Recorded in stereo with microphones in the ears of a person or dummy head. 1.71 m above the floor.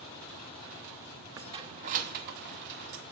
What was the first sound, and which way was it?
Keys jangling, 20° right (ahead or behind).